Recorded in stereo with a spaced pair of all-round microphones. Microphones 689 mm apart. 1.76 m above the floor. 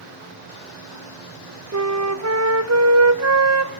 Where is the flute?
25° right (ahead or behind), 0.6 m.